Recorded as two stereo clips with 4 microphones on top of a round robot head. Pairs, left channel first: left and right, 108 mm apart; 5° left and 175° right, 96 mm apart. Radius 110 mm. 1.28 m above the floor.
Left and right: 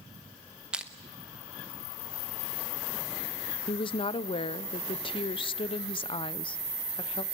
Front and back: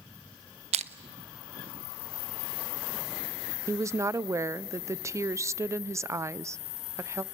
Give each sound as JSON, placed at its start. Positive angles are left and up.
{"t": 0.7, "sound": "crushing", "azimuth_deg": -175, "distance_m": 0.8}
{"t": 3.7, "sound": "a woman speaking", "azimuth_deg": 125, "distance_m": 0.6}